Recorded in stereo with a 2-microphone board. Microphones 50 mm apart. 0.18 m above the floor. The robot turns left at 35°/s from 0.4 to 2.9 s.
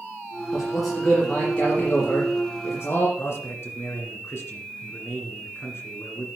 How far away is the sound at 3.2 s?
About 2.0 m.